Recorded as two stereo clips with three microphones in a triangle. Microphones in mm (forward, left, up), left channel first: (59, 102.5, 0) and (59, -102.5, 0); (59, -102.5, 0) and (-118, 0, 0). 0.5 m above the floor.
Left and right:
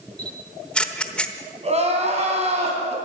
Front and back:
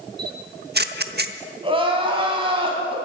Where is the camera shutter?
175° left, 0.9 m.